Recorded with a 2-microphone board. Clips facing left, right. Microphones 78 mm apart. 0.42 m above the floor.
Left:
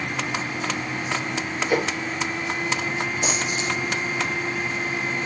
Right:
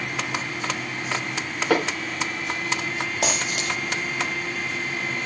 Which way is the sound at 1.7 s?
80° right.